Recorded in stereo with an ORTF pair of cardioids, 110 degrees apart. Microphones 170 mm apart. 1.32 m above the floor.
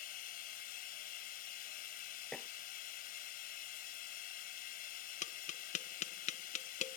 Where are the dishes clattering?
5° left.